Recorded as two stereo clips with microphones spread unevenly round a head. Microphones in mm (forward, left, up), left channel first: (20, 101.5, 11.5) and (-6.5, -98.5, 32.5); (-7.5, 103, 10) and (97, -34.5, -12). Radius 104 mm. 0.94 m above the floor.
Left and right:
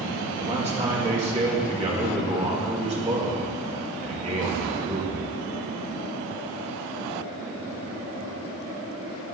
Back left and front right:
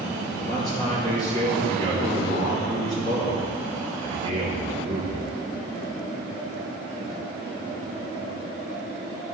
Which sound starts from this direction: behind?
A man speaking, at 0.4 s.